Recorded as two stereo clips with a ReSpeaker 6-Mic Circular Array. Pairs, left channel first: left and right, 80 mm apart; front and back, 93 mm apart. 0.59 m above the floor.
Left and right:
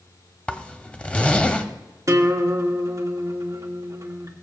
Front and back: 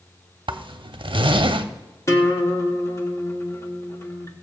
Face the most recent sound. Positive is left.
turn(degrees=-50)